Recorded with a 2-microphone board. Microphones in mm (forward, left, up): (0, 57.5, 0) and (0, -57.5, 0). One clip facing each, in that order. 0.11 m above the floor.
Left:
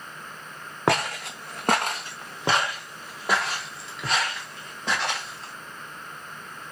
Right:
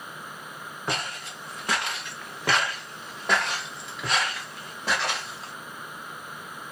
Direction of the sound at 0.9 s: 80° left.